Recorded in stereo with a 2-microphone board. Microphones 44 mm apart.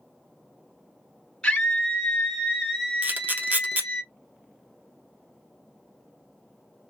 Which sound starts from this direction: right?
A camera shutter, at 3.0 s.